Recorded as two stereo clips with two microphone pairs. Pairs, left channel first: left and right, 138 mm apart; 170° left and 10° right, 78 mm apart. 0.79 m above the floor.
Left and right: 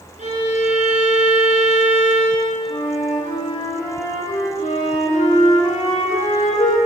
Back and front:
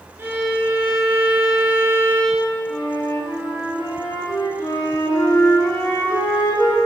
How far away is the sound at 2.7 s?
About 2.5 m.